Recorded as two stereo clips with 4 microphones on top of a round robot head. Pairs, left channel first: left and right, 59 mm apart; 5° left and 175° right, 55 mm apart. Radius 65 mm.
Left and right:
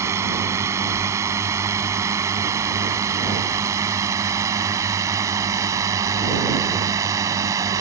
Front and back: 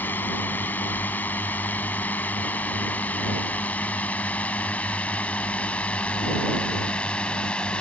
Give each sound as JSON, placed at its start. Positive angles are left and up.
{"t": 0.0, "sound": "a drone", "azimuth_deg": -55}